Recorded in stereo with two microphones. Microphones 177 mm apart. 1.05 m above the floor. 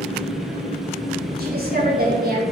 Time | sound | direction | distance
0.0 | an engine running | 40° right (ahead or behind) | 3.5 m
1.4 | a woman speaking | 60° right (ahead or behind) | 5 m